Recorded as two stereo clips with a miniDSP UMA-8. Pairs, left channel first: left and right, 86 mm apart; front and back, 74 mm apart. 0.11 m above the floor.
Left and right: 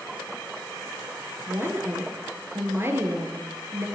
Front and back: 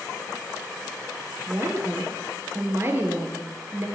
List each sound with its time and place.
1.5 s a woman speaking: 140° right, 2.5 m